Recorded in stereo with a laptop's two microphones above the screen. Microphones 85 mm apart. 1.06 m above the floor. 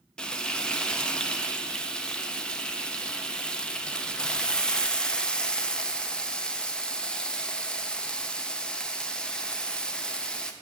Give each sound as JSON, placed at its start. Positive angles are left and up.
{"t": 0.2, "sound": "frying", "side_deg": 10, "distance_m": 0.5}